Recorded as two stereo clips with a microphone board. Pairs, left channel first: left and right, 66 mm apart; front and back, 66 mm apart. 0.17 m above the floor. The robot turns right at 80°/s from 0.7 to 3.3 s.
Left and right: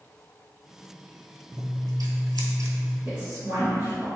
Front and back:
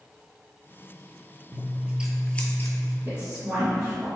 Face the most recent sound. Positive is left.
turn(degrees=-120)